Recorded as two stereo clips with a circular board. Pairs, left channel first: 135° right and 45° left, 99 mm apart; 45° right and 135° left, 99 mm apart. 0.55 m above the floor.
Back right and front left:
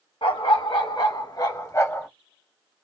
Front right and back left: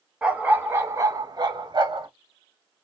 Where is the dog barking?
150° right, 1.1 m; by 2.1 s 165° left, 1.3 m.